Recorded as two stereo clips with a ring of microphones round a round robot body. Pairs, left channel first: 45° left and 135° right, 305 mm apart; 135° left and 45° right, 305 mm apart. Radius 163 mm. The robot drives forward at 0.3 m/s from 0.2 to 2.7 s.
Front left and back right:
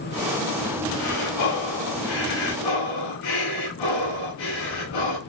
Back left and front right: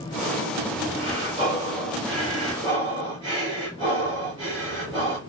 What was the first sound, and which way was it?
Breathing, 25° left.